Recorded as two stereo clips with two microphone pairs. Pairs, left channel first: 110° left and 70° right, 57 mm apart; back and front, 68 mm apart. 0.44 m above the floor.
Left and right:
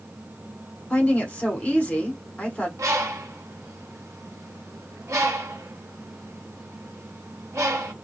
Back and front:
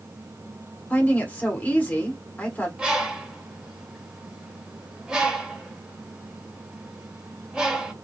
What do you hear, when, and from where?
0.9 s a woman speaking: 145° left, 1.2 m
2.8 s a bird: 75° right, 0.7 m